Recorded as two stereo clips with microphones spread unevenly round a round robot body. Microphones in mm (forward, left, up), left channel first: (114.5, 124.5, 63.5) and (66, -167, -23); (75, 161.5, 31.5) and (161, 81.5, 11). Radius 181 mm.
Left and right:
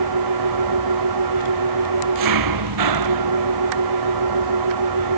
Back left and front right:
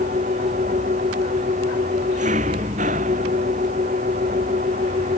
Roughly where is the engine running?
Right.